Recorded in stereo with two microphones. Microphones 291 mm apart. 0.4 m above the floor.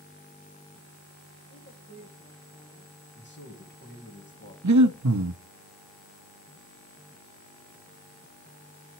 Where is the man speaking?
40° left (ahead or behind), 3 m.